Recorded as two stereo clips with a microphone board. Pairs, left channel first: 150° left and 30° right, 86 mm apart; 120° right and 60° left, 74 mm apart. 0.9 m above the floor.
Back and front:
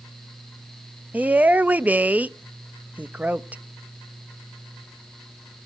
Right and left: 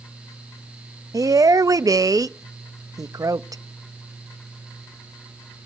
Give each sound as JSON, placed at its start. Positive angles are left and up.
{"t": 1.1, "sound": "a woman speaking", "azimuth_deg": 40, "distance_m": 0.5}